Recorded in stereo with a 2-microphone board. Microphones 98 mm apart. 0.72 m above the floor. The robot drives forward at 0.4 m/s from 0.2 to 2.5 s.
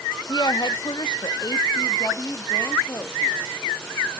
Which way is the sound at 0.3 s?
45° left (ahead or behind).